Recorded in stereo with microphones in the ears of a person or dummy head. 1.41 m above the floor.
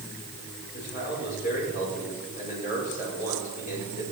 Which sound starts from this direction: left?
A man speaking, at 0.7 s.